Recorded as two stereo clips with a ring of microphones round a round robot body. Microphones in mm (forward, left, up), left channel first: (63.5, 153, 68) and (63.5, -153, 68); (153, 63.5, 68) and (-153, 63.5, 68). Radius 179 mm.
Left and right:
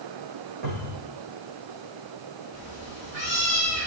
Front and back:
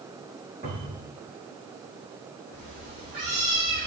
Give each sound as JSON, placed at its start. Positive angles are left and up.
{"t": 0.6, "sound": "a cupboard door", "azimuth_deg": -105, "distance_m": 7.5}
{"t": 2.5, "sound": "a cat meowing", "azimuth_deg": -110, "distance_m": 6.5}